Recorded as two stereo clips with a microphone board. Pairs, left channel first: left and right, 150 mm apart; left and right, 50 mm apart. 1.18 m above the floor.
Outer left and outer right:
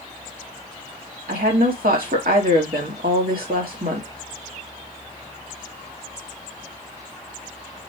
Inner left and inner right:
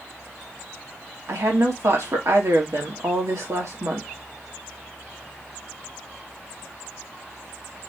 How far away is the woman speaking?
About 1.6 m.